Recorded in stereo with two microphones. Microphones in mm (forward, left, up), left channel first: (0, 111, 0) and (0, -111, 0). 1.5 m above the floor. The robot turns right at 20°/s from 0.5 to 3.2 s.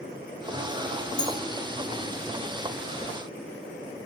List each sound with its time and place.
1.2 s a clink: 5° left (ahead or behind), 4 m